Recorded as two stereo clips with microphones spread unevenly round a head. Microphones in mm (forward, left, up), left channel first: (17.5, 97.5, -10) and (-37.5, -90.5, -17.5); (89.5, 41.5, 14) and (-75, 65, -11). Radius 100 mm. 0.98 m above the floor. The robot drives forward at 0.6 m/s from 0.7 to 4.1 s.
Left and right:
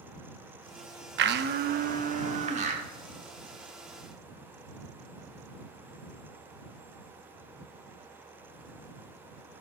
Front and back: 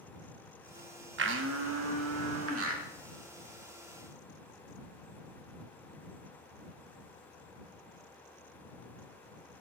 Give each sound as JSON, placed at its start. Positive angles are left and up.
{"t": 1.2, "sound": "a blender", "azimuth_deg": -145, "distance_m": 0.6}